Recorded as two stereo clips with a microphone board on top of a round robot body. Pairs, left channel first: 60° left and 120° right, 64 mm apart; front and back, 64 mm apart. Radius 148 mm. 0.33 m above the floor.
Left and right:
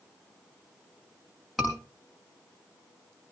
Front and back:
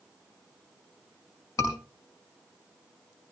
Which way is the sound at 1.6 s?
30° right.